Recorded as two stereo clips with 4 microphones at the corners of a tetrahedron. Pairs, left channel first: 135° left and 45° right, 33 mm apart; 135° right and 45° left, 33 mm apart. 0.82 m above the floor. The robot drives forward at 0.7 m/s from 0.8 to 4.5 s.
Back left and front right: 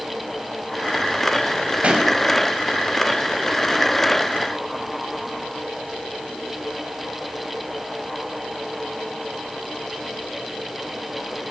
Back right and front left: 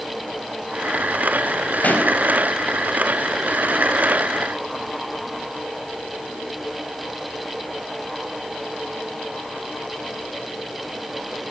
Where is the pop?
95° right, 5 m.